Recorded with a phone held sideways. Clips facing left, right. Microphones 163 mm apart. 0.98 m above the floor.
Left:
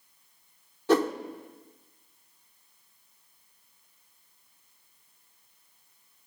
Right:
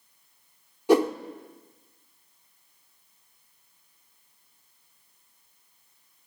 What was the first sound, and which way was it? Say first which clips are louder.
A whoosh: right 3 dB; 15° right (ahead or behind).